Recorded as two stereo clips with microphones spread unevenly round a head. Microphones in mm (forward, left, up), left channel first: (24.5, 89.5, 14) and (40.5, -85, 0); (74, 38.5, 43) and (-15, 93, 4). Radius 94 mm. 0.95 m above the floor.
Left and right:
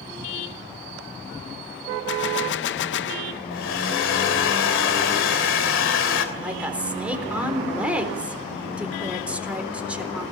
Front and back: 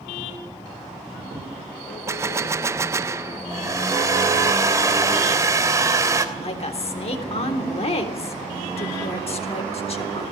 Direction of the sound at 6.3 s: Straight ahead.